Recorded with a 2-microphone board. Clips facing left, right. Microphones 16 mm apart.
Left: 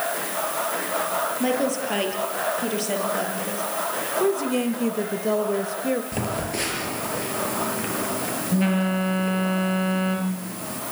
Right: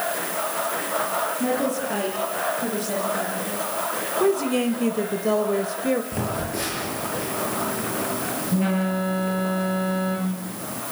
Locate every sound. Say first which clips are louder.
1.4 s a woman speaking: even; 45° left (ahead or behind), 7.5 m
4.2 s a woman speaking: right 2 dB; 5° right (ahead or behind), 1.4 m
6.1 s a phone buzzing: even; 30° left (ahead or behind), 7.5 m